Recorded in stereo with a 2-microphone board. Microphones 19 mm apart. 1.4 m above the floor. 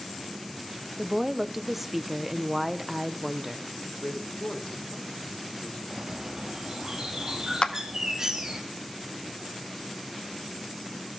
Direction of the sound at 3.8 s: 80° left.